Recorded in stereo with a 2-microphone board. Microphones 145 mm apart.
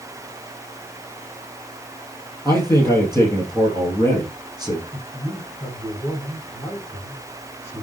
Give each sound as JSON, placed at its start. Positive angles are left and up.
{"t": 2.5, "sound": "a man speaking", "side_deg": 15, "distance_m": 2.5}
{"t": 4.9, "sound": "a man speaking", "side_deg": 15, "distance_m": 5.0}